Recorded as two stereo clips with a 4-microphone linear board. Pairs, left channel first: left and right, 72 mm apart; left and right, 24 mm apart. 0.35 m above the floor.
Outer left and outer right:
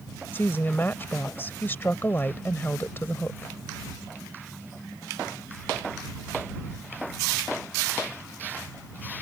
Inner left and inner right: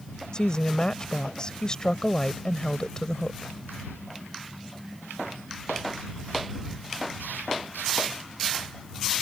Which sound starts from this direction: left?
A woman speaking, at 0.3 s.